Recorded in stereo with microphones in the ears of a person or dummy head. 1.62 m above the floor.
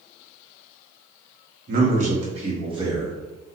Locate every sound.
1.7 s a man speaking: 55° right (ahead or behind), 1.0 m; by 3.2 s 20° right (ahead or behind), 1.4 m